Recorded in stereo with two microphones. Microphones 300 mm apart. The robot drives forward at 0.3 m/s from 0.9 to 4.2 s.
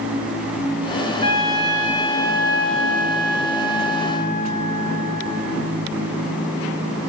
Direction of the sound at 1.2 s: 55° left (ahead or behind).